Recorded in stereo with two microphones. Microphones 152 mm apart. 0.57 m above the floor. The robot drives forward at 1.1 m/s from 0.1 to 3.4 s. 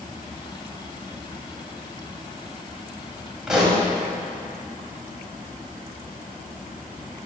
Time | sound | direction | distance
3.5 | a pop | 5° right (ahead or behind) | 1.3 m